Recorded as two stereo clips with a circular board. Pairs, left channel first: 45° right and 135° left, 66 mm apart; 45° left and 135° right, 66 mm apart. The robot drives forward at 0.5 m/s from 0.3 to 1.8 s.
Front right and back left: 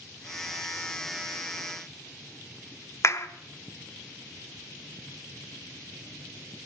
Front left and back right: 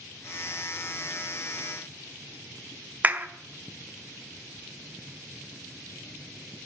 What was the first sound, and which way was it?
A clap, 75° right.